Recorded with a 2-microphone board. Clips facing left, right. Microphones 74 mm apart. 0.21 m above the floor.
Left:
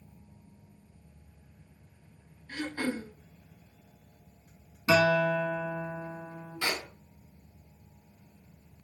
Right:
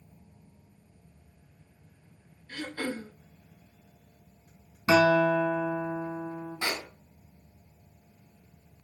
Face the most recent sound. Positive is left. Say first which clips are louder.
# left 1 dB
turn(degrees=-25)  # may be behind; listen again after turning